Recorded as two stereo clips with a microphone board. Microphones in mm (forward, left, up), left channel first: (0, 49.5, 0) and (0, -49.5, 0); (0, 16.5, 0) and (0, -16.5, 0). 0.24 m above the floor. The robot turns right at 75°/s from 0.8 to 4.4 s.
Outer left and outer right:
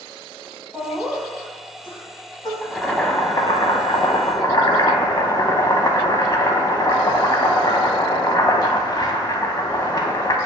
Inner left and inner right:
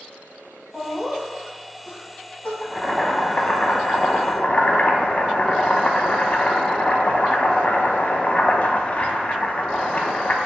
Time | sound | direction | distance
0.7 | laughter | 30° right (ahead or behind) | 1.8 m
2.6 | boiling | 10° right | 0.6 m